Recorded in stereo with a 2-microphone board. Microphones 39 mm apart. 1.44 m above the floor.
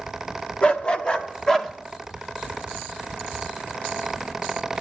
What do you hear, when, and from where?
0.6 s a dog barking: 30° left (ahead or behind), 1.1 m; by 1.7 s 10° left (ahead or behind), 1.2 m